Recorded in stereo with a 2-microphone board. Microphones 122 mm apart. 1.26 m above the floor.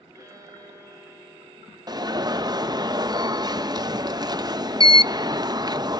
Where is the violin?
25° right (ahead or behind), 8 m.